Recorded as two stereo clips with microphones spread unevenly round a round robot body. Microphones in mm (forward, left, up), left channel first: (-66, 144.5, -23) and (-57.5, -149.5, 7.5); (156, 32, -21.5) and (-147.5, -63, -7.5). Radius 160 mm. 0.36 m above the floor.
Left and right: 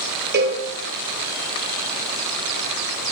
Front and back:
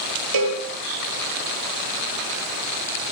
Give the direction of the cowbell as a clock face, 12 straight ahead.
5 o'clock.